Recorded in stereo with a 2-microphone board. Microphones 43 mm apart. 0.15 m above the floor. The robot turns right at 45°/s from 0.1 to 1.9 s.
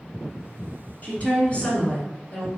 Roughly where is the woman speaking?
Left.